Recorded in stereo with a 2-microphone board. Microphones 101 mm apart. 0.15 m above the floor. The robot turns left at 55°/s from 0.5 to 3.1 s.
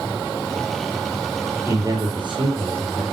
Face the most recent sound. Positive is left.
turn(degrees=-105)